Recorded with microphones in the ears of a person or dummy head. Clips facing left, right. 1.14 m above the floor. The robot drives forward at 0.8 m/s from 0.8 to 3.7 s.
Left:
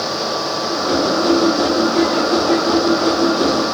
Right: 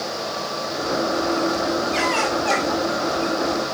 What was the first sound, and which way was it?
Only background noise.